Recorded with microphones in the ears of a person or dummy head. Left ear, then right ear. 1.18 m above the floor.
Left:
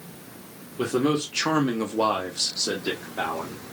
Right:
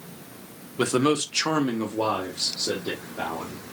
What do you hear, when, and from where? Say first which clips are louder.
0.8 s a man speaking: right 2 dB; 55° right (ahead or behind), 0.8 m; by 3.6 s 65° left (ahead or behind), 1.6 m